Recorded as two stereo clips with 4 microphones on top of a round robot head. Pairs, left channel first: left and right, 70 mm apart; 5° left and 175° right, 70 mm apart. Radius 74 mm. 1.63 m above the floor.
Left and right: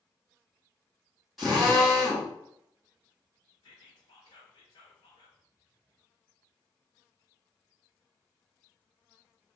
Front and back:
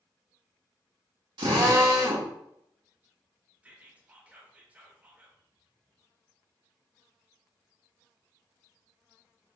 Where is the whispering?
115° left, 1.0 m.